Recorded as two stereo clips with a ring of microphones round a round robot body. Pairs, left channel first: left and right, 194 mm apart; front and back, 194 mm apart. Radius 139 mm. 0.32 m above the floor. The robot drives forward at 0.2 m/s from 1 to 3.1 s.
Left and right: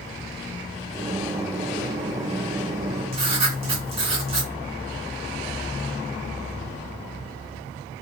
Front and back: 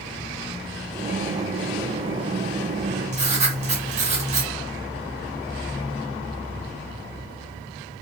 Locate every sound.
3.1 s writing: 140° right, 0.6 m